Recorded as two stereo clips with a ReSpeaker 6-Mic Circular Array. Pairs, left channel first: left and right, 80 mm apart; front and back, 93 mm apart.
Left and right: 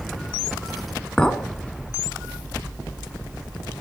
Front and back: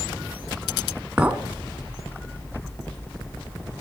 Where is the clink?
145° left, 0.6 m.